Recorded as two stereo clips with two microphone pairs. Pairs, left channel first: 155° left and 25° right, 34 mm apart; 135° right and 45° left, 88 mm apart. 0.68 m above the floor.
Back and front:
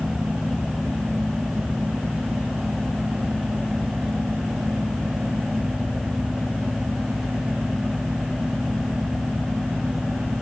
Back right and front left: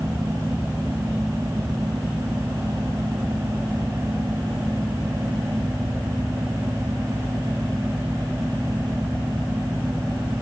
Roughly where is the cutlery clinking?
No cutlery clinking in this recording.